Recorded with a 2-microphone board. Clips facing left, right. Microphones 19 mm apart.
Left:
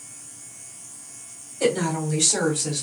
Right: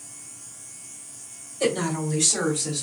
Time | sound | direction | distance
1.6 | a woman speaking | 10° left (ahead or behind) | 1.2 m